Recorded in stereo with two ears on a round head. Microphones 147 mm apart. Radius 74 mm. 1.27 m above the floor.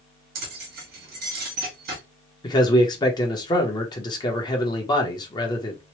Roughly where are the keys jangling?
Right.